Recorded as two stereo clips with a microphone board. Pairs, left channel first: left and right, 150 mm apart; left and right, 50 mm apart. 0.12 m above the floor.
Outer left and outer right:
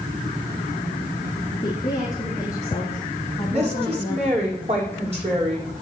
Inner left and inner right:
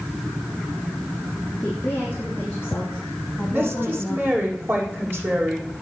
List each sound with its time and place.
1.6 s a woman speaking: 30° left (ahead or behind), 3.5 m; by 4.3 s 10° left (ahead or behind), 4.5 m
3.5 s a woman speaking: 45° right (ahead or behind), 5.5 m